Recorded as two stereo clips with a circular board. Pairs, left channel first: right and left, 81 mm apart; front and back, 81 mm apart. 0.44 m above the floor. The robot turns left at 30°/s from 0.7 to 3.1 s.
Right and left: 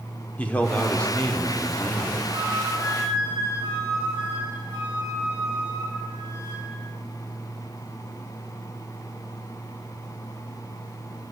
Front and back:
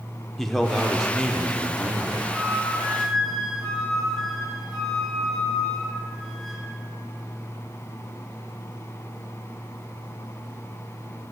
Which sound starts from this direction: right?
A man speaking, at 0.4 s.